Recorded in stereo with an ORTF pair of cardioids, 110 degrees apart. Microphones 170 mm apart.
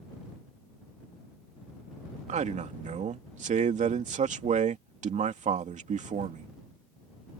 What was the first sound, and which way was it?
A man speaking, 45° right.